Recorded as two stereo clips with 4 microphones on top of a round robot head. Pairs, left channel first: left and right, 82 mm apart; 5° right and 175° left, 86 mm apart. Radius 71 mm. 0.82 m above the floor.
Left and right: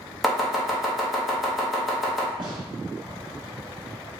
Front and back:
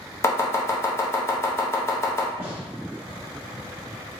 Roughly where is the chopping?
Ahead.